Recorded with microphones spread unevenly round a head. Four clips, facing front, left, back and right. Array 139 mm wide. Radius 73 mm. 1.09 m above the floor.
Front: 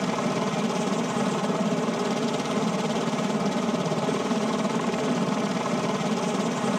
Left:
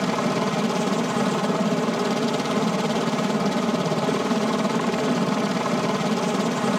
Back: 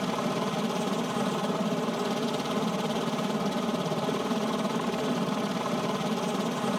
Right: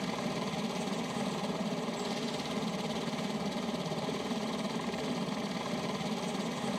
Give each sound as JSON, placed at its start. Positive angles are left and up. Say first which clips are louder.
{"t": 0.0, "sound": "a helicopter", "louder": "left 13 dB, front 3 dB", "azimuth_deg": 75}